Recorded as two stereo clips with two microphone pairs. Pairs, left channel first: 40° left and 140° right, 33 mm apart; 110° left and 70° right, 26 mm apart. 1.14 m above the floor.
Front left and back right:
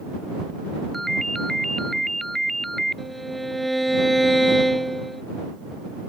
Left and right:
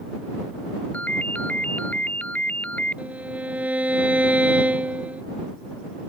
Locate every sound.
0.9 s a ringtone: 120° left
3.0 s a violin: 45° right